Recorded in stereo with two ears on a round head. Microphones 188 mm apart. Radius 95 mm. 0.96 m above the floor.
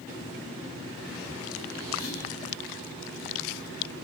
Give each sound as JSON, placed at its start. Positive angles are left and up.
{"t": 2.0, "sound": "whispering", "side_deg": 45, "distance_m": 1.6}